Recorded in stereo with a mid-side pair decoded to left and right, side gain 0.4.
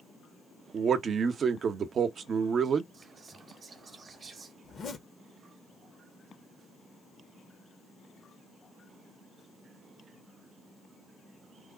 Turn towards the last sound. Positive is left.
turn(degrees=60)